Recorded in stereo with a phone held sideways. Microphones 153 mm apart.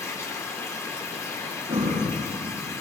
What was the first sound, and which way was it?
Running water, 20° left (ahead or behind).